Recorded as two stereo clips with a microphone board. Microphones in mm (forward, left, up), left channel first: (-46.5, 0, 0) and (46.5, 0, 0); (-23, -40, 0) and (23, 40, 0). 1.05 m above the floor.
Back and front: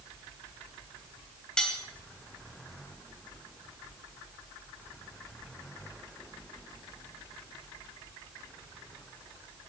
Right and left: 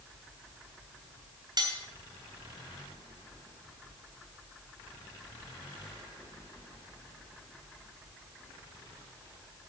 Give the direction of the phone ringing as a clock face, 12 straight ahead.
No phone ringing in this recording.